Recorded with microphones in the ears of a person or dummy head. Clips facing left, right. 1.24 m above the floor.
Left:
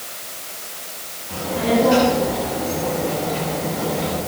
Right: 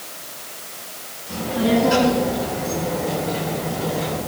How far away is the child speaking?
About 6.5 m.